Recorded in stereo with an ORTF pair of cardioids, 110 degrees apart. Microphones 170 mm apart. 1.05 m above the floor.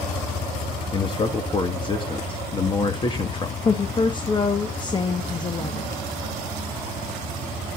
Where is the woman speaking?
25° left, 1.2 m.